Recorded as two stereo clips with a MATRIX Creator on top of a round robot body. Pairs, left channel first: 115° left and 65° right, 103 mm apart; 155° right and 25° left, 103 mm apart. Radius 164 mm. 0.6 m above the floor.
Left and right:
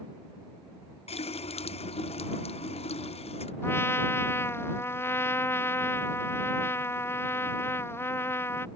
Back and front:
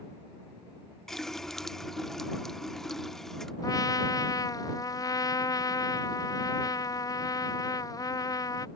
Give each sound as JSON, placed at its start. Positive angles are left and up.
{"t": 1.1, "sound": "a running tap", "azimuth_deg": 115}
{"t": 3.6, "sound": "a trumpet", "azimuth_deg": 170}